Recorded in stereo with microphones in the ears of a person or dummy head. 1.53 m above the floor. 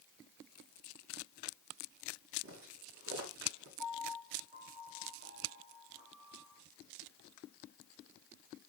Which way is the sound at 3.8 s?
65° right (ahead or behind).